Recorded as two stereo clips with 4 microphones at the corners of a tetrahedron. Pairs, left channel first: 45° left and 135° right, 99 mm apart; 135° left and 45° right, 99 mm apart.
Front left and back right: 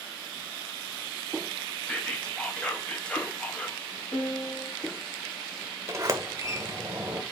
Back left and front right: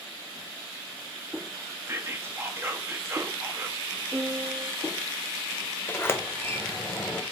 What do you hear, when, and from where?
1.9 s whispering: 20° right, 0.6 m
4.1 s a piano: 15° left, 0.9 m
5.9 s a sliding door: 170° right, 0.6 m